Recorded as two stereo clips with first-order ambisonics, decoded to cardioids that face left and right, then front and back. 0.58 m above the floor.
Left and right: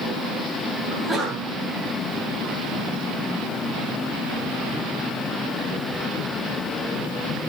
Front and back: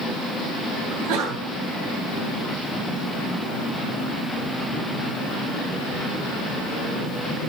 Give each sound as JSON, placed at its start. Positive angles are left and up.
{"t": 0.9, "sound": "a sneeze", "azimuth_deg": 180, "distance_m": 9.0}